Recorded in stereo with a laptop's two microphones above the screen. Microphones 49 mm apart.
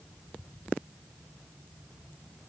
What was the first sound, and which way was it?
Only background noise.